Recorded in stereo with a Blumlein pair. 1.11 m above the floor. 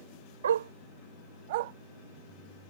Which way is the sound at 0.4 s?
65° right.